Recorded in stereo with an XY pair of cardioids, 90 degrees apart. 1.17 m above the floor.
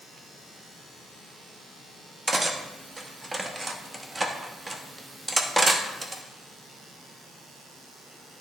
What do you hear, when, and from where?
2.3 s cutlery clinking: 15° right, 0.9 m